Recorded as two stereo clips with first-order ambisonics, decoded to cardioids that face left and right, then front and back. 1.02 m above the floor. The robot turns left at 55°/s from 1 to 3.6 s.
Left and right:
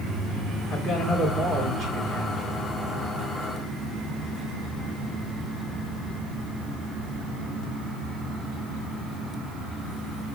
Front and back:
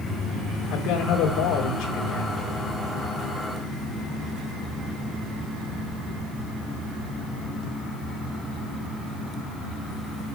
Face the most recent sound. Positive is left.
turn(degrees=-145)